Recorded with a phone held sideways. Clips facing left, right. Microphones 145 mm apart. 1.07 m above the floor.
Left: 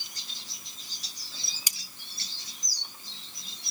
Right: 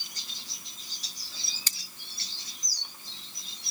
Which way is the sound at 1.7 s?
15° left (ahead or behind).